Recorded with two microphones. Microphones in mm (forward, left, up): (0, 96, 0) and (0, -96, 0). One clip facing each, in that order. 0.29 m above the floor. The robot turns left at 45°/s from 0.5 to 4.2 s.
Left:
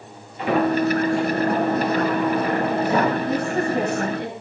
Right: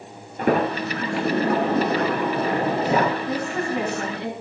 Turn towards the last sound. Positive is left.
turn(degrees=115)